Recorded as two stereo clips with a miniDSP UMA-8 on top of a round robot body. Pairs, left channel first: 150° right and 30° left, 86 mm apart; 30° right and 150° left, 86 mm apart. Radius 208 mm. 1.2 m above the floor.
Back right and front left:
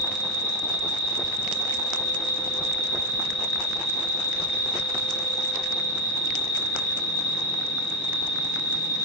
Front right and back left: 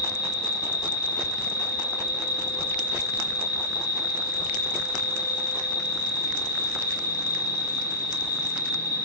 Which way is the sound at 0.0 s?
65° right.